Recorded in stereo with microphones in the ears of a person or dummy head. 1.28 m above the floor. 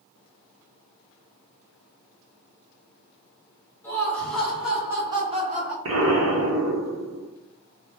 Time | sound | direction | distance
3.8 | laughter | 15° left (ahead or behind) | 1.5 m
5.8 | an explosion | 75° right (ahead or behind) | 1.0 m